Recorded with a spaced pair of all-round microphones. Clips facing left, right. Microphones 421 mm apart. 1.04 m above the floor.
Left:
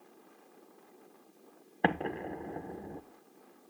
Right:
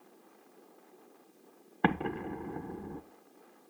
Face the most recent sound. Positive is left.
turn(degrees=-20)  # may be behind; listen again after turning